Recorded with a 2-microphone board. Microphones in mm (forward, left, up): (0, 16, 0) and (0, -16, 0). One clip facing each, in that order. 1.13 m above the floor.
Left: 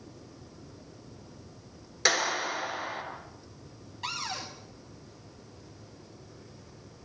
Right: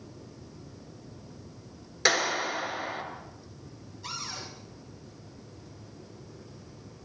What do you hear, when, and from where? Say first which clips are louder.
2.0 s a clap: right 1 dB; 5° right (ahead or behind), 5 m
4.0 s a cupboard door: left 4 dB; 65° left (ahead or behind), 4.5 m